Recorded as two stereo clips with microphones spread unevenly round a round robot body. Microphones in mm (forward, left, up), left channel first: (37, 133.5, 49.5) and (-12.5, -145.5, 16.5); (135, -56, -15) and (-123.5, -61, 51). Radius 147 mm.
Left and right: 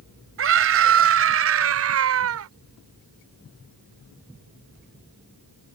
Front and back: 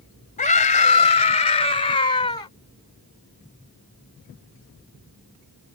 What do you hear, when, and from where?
0.4 s a scream: 60° right; by 2.5 s 70° right